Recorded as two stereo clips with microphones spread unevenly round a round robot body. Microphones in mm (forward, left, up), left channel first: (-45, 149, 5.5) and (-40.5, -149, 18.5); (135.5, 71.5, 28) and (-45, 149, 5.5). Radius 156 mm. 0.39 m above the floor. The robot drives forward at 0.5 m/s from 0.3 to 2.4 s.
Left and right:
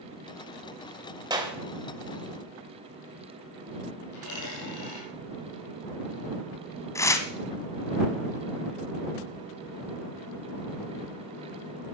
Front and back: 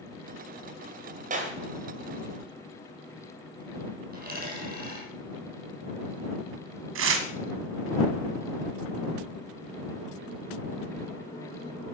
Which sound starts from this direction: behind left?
A dropped coin, at 4.1 s.